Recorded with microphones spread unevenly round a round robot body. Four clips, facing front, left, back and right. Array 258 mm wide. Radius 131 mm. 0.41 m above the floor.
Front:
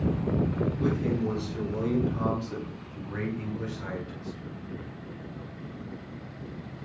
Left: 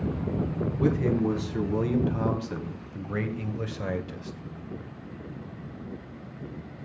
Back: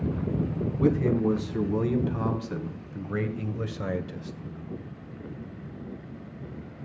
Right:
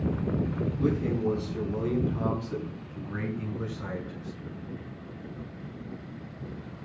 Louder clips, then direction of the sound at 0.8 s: Left 3 dB, back 8 dB; 115° left.